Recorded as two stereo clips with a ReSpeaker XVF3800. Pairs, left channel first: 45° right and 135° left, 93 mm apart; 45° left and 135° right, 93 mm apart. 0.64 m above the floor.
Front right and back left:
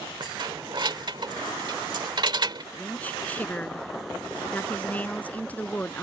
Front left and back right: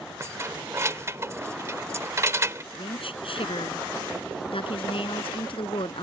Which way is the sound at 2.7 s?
30° left.